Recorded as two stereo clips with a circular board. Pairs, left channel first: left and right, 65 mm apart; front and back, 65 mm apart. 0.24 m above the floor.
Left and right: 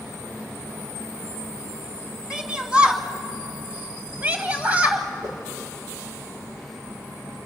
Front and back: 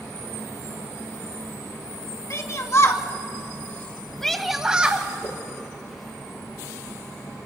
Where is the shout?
15° right, 2.5 m; by 5.1 s 140° right, 1.5 m.